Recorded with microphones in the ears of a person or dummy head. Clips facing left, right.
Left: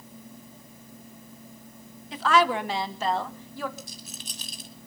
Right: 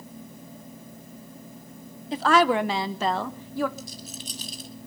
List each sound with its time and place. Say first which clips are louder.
2.1 s a woman speaking: right 3 dB; 30° right (ahead or behind), 0.9 m; by 3.7 s 50° right (ahead or behind), 1.6 m
3.8 s a rattle: right 4 dB; 50° left (ahead or behind), 2.5 m